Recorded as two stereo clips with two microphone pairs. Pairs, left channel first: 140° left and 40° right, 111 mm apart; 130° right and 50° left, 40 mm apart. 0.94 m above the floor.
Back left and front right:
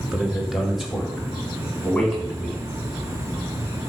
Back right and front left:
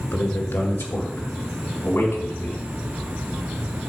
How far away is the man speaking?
About 1.5 m.